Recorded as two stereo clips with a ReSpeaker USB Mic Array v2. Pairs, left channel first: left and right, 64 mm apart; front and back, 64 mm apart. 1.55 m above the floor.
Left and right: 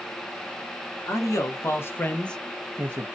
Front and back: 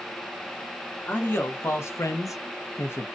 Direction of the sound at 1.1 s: 55° left.